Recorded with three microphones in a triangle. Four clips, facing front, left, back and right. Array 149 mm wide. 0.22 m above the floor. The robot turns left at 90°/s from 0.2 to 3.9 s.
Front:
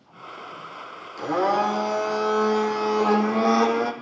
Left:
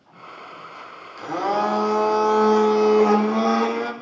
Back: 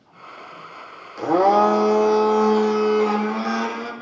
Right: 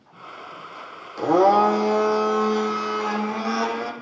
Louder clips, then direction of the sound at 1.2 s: Right 7 dB, back 6 dB; 120° right.